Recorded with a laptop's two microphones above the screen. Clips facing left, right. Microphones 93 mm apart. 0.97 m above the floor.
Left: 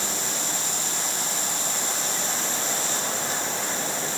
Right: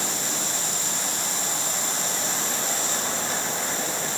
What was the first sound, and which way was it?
Only background noise.